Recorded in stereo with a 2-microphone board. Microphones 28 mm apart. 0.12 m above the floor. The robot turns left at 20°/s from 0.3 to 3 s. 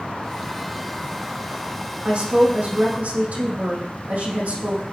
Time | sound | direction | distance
2.0 | a woman speaking | 60° right (ahead or behind) | 5.5 m